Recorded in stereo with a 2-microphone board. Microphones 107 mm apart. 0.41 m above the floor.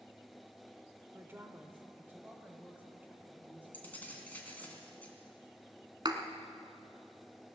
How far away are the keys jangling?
About 2.5 m.